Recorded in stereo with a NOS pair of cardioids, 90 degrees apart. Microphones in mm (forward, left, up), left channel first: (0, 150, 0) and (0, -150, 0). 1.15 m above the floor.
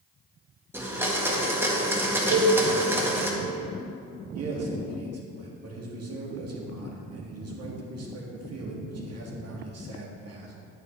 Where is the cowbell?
40° right, 1.3 m.